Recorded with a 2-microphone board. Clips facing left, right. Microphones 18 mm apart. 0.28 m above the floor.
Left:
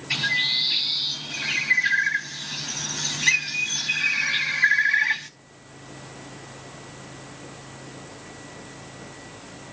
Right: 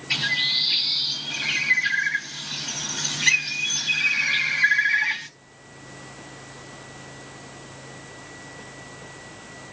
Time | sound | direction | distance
0.1 | a bird | 25° right (ahead or behind) | 2 m